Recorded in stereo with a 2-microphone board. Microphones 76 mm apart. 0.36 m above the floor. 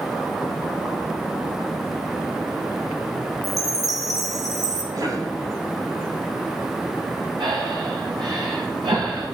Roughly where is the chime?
Right.